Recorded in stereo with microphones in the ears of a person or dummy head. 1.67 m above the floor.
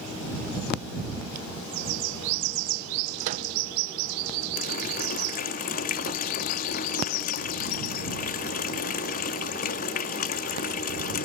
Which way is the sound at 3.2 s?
45° right (ahead or behind).